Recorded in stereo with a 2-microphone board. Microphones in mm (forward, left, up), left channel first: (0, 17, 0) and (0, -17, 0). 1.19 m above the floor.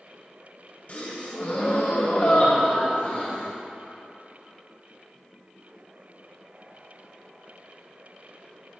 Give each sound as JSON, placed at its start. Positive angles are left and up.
{"t": 0.9, "sound": "a gasp", "side_deg": 45, "distance_m": 1.7}